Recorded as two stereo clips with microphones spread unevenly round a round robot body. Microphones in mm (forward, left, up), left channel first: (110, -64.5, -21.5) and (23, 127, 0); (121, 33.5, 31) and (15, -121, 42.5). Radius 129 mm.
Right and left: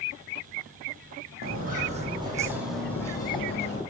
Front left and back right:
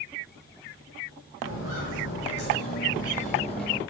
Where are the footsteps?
80° left, 1.3 m; by 3.8 s 10° right, 1.4 m.